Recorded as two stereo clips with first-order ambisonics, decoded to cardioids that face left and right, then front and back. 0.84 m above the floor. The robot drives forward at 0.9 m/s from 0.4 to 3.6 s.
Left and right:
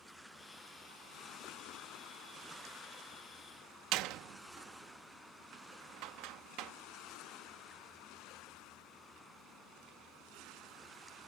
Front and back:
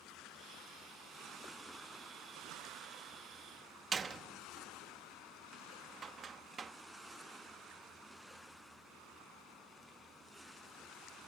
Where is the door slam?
115° right.